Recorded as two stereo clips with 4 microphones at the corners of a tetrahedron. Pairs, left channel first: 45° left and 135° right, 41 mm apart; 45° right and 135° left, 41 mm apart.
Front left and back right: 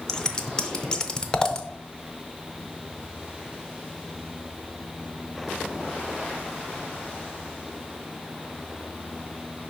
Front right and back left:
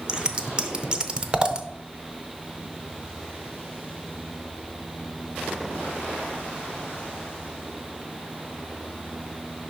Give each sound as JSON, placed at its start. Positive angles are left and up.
{"t": 0.1, "sound": "scissors", "azimuth_deg": 95, "distance_m": 0.5}